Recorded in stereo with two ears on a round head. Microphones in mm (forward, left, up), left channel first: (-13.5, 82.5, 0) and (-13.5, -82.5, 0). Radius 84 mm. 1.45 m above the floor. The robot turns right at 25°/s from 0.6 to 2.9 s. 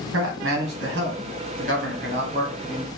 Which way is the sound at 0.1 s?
75° right.